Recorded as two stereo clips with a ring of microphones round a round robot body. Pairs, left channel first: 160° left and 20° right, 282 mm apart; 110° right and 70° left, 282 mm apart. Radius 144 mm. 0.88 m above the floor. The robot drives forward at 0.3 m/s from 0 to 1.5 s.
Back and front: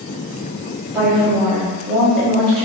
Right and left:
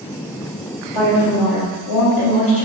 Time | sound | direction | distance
0.9 | a woman speaking | 110° right | 1.9 m